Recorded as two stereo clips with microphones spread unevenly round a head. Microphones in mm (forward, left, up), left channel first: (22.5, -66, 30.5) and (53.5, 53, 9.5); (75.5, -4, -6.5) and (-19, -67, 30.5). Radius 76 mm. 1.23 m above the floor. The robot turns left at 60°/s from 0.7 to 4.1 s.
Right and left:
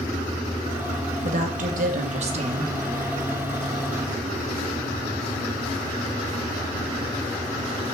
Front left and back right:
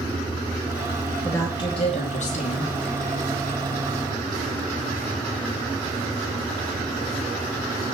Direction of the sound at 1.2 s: 110° left.